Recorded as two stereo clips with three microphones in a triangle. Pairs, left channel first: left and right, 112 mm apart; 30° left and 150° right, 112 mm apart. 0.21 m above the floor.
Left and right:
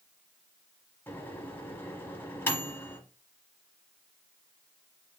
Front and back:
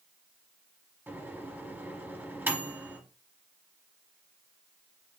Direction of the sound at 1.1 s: 150° left.